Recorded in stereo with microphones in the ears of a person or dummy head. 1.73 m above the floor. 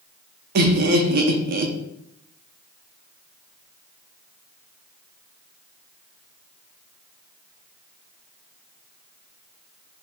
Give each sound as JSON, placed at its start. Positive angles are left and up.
{"t": 0.6, "sound": "laughter", "side_deg": -50, "distance_m": 0.8}